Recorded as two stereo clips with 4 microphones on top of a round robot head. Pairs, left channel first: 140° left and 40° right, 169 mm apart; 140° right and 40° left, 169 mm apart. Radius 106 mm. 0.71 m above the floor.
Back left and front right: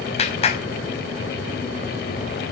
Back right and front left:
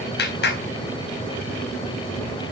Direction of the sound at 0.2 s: 165° right.